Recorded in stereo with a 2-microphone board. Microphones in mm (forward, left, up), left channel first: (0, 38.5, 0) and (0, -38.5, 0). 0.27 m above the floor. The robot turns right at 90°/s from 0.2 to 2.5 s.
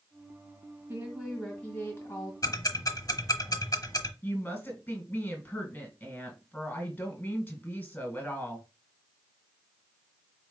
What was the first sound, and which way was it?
A woman speaking, 40° right.